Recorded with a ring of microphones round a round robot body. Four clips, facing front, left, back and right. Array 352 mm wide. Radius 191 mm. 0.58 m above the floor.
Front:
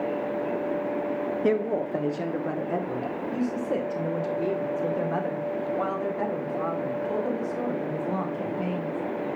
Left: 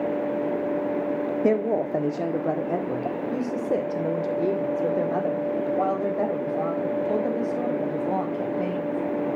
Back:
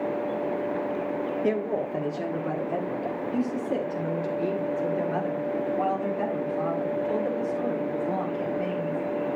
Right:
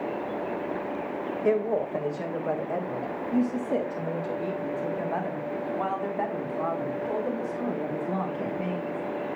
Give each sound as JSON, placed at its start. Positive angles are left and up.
{"t": 1.4, "sound": "a woman speaking", "azimuth_deg": 75, "distance_m": 1.8}